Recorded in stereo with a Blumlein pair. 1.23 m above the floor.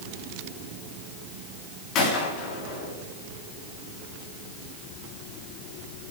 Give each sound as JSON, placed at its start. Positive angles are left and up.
{"t": 1.9, "sound": "a gunshot", "azimuth_deg": 35, "distance_m": 3.0}